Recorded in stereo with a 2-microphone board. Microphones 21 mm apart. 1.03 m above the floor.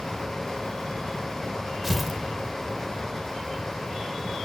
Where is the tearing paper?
10° right (ahead or behind), 2 m.